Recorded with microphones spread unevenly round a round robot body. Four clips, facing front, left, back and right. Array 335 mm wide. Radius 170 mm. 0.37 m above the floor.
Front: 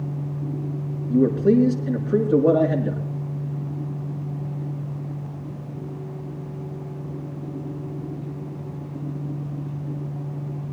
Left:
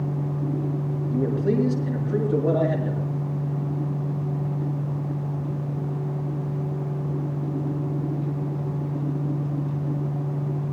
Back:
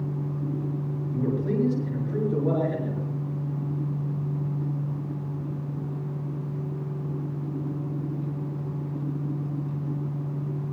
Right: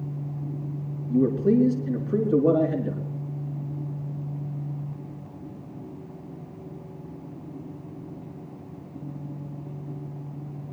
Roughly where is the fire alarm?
I don't hear a fire alarm.